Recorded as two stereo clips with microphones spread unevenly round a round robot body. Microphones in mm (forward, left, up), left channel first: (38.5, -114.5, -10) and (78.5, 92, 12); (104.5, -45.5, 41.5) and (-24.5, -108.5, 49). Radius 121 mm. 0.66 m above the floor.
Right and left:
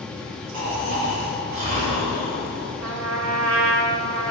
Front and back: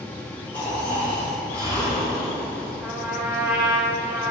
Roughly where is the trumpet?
Behind left.